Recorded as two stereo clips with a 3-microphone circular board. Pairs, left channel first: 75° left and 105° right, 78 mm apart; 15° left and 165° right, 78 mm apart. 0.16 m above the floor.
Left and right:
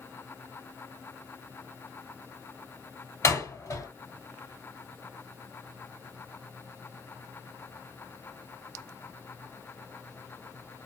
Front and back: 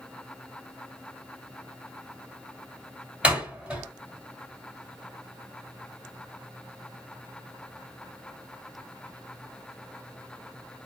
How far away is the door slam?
About 2 m.